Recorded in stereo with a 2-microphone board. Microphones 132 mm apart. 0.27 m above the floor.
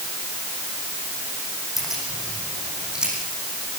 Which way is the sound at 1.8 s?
Centre (ahead or behind).